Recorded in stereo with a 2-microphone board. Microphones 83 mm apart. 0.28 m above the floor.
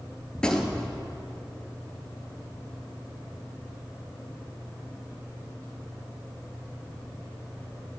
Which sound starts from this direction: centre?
A gunshot, at 0.3 s.